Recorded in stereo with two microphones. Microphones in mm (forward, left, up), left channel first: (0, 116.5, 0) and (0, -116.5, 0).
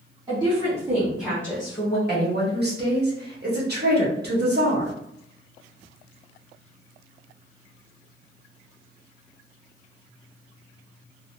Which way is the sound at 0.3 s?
25° right (ahead or behind).